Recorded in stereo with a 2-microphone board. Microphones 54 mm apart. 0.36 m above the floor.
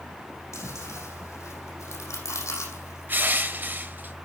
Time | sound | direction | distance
0.5 | chewing | 70° left (ahead or behind) | 6 m
3.1 | crushing | 40° right (ahead or behind) | 1.2 m